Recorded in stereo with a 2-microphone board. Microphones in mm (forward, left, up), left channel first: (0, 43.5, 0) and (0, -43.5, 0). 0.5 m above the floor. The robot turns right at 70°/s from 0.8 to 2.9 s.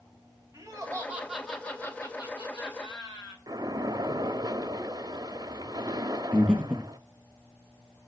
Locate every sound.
0.5 s laughter: 45° right, 2.5 m; by 3.4 s 105° left, 2.5 m
3.5 s a splash: 50° right (ahead or behind), 0.6 m
6.3 s breathing: 10° left (ahead or behind), 3 m